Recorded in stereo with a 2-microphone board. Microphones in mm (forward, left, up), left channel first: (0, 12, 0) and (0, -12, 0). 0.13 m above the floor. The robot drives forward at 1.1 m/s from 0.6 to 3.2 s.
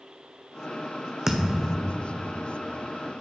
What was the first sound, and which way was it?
A thud, 20° right (ahead or behind).